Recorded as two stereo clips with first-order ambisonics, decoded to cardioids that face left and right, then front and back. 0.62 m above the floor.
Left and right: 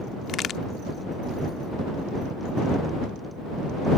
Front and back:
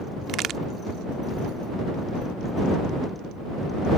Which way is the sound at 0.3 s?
140° left.